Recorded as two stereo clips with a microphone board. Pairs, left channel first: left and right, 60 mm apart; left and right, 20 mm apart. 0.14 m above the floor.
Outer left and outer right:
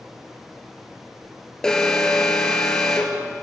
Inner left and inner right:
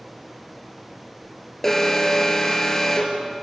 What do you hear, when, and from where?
1.6 s an alarm: 15° left (ahead or behind), 3.5 m